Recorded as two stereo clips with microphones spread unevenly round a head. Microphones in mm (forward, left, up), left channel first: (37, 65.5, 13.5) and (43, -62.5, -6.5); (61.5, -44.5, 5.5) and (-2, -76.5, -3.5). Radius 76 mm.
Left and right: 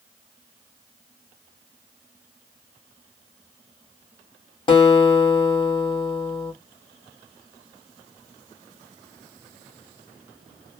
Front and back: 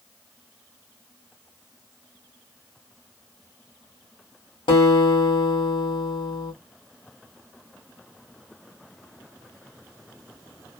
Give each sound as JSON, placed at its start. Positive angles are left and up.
{"t": 4.7, "sound": "a guitar", "azimuth_deg": 40, "distance_m": 1.5}